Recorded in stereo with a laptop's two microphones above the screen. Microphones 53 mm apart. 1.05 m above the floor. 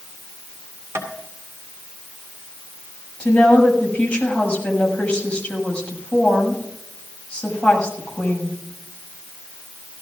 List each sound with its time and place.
0.9 s tapping: 60° right (ahead or behind), 2.5 m
3.2 s a woman speaking: 20° left (ahead or behind), 6 m